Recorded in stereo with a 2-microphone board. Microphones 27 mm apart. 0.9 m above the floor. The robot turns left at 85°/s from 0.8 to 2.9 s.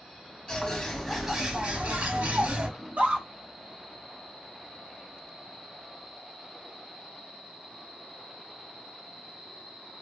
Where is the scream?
80° right, 1.7 m.